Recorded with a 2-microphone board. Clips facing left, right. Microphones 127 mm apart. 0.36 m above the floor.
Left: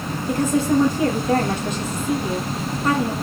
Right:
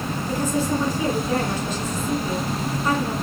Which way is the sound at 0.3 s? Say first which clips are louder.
Left 5 dB; 55° left (ahead or behind).